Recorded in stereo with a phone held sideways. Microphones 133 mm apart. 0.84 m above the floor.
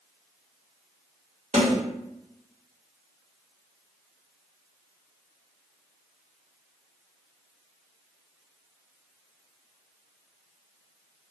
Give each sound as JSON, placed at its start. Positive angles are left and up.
{"t": 1.5, "sound": "a snare drum", "side_deg": -55, "distance_m": 1.3}